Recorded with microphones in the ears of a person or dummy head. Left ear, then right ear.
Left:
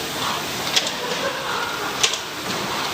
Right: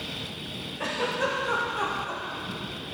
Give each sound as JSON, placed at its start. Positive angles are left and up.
{"t": 0.8, "sound": "a giggle", "side_deg": -30, "distance_m": 1.2}